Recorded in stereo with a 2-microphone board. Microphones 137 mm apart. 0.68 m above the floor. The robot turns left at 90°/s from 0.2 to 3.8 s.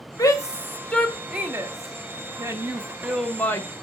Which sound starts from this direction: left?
A shout, at 0.2 s.